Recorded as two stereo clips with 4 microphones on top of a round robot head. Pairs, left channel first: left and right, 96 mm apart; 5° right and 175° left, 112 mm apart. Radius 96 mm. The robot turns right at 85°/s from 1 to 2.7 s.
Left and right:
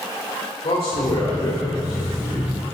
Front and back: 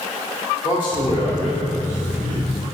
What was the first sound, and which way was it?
A man speaking, 40° left.